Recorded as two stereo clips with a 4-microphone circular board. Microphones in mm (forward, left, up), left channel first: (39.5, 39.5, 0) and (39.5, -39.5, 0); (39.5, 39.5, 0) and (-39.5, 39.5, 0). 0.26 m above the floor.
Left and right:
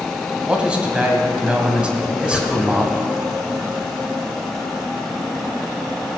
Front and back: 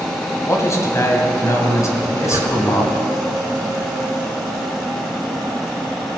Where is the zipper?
175° left, 2.5 m.